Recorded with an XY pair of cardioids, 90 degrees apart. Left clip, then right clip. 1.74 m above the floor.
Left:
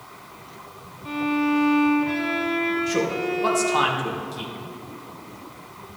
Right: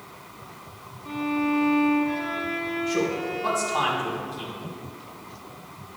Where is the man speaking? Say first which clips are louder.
Left 2 dB; 65° left, 2.5 m.